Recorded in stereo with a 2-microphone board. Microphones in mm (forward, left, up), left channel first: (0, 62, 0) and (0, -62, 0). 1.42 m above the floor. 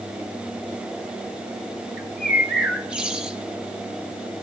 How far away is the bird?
About 1.2 m.